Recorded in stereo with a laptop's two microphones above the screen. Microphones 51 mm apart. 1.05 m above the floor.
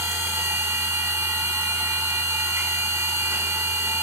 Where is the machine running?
85° right, 7.5 m.